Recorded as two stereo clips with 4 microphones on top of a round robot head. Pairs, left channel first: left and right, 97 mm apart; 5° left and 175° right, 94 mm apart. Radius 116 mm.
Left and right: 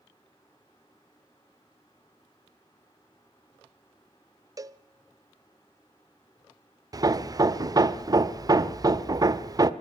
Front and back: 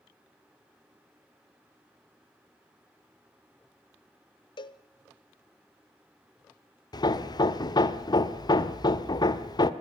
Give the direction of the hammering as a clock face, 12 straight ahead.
1 o'clock.